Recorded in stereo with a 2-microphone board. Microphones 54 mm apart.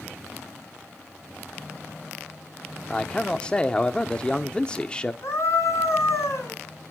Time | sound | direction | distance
2.9 | a man speaking | 20° left (ahead or behind) | 0.7 m
5.2 | a scream | 65° left (ahead or behind) | 4.5 m